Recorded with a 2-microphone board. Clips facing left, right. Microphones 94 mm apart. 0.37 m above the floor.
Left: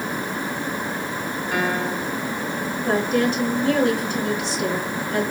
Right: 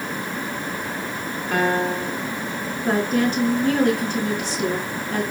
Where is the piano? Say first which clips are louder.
Right 4 dB; 45° right (ahead or behind), 2 m.